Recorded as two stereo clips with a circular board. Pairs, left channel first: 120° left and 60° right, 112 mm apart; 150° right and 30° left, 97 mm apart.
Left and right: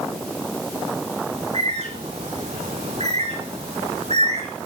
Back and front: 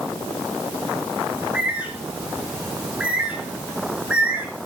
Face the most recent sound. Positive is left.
turn(degrees=-50)